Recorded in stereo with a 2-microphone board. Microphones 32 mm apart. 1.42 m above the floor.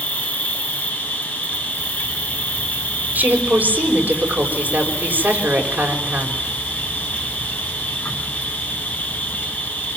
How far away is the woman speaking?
About 6.5 m.